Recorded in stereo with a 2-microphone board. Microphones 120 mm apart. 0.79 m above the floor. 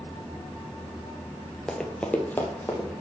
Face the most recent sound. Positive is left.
turn(degrees=15)  # may be behind; listen again after turning